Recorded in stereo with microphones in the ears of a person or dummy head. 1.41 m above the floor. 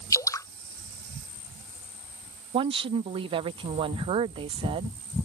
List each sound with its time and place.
0.1 s dripping: 20° left (ahead or behind)
2.5 s a woman speaking: 30° right (ahead or behind)